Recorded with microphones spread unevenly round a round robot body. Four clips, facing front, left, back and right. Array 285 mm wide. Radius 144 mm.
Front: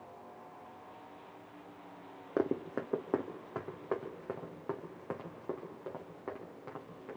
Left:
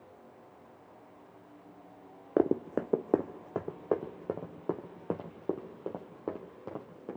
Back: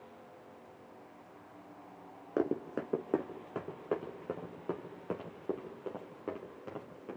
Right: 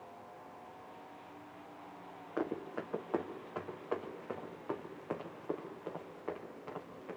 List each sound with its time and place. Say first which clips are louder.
2.4 s running footsteps: left 10 dB, even; 85° left, 1.0 m; by 7.2 s 95° left, 4 m